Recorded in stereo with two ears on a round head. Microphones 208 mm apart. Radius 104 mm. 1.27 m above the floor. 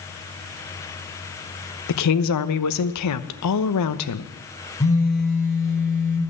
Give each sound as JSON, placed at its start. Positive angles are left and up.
{"t": 1.9, "sound": "a woman speaking", "side_deg": 85, "distance_m": 0.9}
{"t": 4.8, "sound": "a phone buzzing", "side_deg": 15, "distance_m": 3.5}